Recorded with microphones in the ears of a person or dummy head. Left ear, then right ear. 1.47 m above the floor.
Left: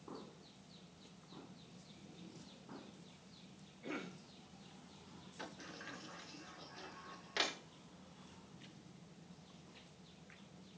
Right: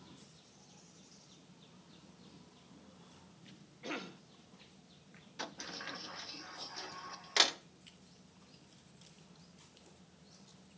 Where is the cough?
45° right (ahead or behind), 1.9 m.